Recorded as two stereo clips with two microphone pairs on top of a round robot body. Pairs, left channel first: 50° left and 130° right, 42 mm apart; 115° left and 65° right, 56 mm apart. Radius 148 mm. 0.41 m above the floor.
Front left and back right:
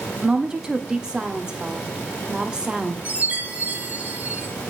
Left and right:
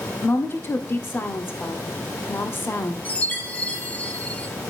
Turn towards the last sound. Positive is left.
turn(degrees=175)